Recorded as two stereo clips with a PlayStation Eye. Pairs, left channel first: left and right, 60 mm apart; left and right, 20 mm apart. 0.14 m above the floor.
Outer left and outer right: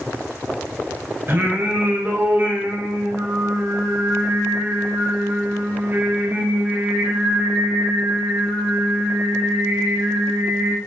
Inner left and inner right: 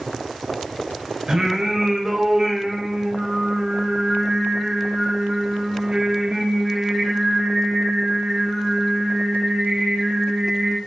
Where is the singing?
35° right (ahead or behind), 1.6 m.